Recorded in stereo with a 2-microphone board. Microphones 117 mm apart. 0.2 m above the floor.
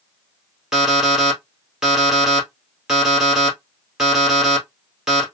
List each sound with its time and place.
0.7 s an alarm clock: 5° right (ahead or behind), 1.8 m